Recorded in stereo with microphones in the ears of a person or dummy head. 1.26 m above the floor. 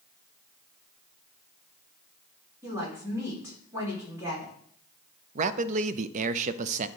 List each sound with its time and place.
2.6 s a woman speaking: 15° right (ahead or behind), 3.5 m
5.3 s a man speaking: 40° right (ahead or behind), 0.5 m